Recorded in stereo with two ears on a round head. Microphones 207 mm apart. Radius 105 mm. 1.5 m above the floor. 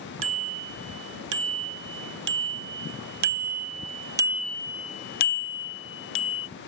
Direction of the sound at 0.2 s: 60° right (ahead or behind).